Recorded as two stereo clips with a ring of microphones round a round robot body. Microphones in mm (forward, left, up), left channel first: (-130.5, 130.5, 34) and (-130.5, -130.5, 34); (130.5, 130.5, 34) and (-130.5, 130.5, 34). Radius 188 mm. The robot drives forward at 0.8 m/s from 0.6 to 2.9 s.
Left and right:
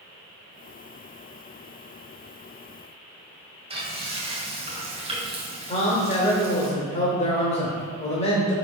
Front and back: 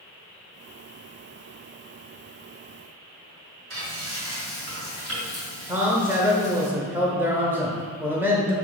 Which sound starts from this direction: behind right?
Frying, at 3.7 s.